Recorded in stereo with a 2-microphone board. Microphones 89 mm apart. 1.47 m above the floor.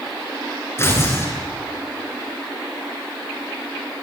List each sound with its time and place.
0.8 s tearing paper: 30° left (ahead or behind), 8 m